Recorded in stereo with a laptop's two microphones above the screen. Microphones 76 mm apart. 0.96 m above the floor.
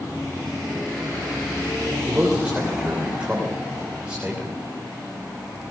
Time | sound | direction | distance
2.1 | a man speaking | 15° right (ahead or behind) | 3 m